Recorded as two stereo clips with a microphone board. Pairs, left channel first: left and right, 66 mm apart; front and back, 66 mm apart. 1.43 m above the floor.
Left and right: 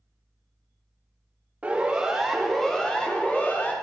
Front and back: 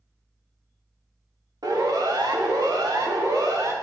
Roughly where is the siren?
Behind.